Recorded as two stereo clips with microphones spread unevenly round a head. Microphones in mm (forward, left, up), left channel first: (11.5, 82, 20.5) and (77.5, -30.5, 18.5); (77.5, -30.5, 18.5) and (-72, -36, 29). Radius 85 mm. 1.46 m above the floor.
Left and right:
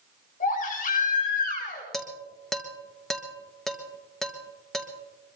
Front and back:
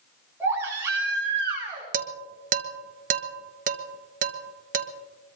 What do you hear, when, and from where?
0.4 s a baby crying: 105° left, 7.5 m
1.9 s dishes clattering: 155° right, 1.1 m